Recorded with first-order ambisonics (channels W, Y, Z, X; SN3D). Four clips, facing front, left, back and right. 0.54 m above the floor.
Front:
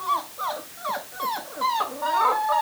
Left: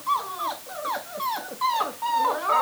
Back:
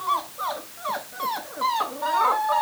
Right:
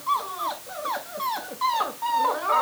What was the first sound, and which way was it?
Only background noise.